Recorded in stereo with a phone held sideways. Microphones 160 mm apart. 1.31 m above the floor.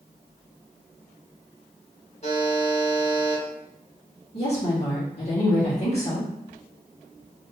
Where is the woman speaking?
40° left (ahead or behind), 1.8 m.